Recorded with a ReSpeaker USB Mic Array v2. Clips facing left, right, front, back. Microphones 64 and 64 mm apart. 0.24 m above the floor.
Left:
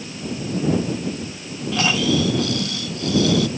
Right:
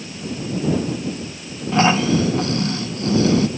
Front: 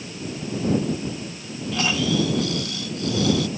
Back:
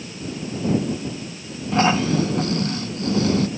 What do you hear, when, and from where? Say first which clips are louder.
1.7 s snoring: right 4 dB, back 4 dB; 140° right